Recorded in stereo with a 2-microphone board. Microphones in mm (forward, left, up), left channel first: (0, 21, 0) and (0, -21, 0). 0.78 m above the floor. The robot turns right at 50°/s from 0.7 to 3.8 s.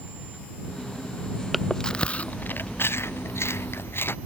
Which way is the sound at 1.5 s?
Centre (ahead or behind).